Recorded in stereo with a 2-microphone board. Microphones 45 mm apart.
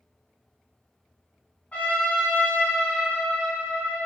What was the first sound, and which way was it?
A trumpet, 30° left (ahead or behind).